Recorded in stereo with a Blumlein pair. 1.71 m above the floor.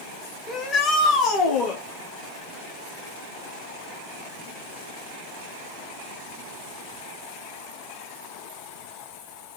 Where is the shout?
20° left, 1.4 m; by 1.8 s 30° left, 2.5 m.